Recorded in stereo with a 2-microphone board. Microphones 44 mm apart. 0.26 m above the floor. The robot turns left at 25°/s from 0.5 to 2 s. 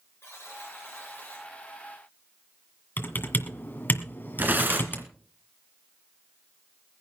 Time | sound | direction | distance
0.2 | a buzzer | 60° left (ahead or behind) | 7 m
3.0 | typing on a keyboard | 45° left (ahead or behind) | 1.8 m
4.4 | tearing paper | 45° right (ahead or behind) | 2 m